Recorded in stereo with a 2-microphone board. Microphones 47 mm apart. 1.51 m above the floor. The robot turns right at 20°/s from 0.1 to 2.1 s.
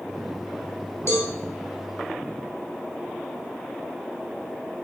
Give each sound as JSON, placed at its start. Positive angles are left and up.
{"t": 1.1, "sound": "a cowbell", "side_deg": 70, "distance_m": 2.5}